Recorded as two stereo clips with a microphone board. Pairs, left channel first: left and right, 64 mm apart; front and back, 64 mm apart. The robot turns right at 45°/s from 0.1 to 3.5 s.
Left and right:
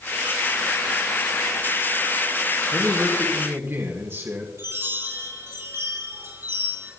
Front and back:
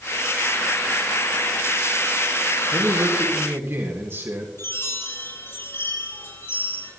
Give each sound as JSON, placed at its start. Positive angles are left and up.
{"t": 2.7, "sound": "a man speaking", "azimuth_deg": -170, "distance_m": 3.0}
{"t": 4.6, "sound": "a chime", "azimuth_deg": -50, "distance_m": 8.5}